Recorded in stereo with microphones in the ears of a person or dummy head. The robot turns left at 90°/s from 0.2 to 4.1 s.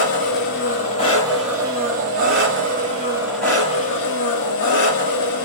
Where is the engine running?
105° left, 1.3 m; by 5.5 s 115° left, 1.3 m.